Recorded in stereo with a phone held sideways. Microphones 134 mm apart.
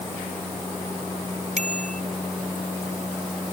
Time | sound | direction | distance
1.6 | a bicycle bell | 65° right (ahead or behind) | ?